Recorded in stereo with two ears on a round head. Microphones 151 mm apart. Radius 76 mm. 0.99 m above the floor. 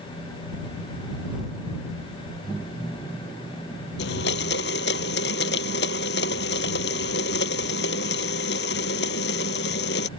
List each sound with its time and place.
4.0 s a blender: 70° left (ahead or behind)